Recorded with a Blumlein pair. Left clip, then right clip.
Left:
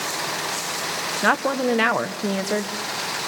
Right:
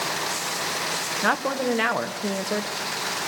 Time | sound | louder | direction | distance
1.2 | a woman speaking | left 4 dB | 10° left | 1.3 m